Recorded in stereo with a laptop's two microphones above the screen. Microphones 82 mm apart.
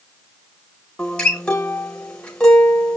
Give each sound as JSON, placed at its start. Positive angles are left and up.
{"t": 1.0, "sound": "a guitar", "side_deg": 10, "distance_m": 0.9}